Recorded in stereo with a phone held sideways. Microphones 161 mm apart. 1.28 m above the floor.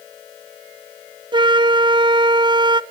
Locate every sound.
1.3 s a flute: 30° right (ahead or behind), 0.5 m